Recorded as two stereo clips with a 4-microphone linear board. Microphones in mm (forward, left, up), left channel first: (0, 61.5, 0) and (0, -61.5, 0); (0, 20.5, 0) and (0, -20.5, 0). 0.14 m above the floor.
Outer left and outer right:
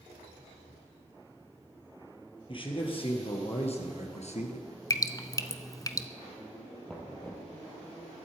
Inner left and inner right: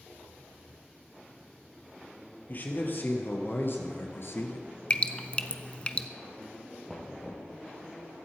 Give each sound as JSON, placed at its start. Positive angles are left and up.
{"t": 2.5, "sound": "a man speaking", "side_deg": 40, "distance_m": 3.0}
{"t": 4.9, "sound": "dripping", "side_deg": 30, "distance_m": 0.8}
{"t": 6.9, "sound": "knocking", "side_deg": 5, "distance_m": 2.5}